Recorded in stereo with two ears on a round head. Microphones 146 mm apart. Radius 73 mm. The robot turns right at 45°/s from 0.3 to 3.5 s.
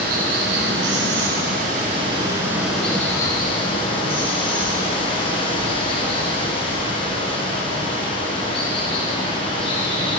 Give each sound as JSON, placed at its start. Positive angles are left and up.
{"t": 0.0, "sound": "running water", "azimuth_deg": -110, "distance_m": 4.5}